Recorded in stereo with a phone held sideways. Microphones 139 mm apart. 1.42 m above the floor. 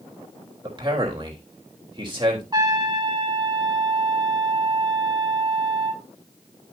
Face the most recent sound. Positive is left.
turn(degrees=-30)  # may be behind; listen again after turning